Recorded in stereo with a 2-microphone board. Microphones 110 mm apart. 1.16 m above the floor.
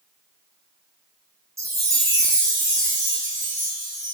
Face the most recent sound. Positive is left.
turn(degrees=-25)  # may be behind; listen again after turning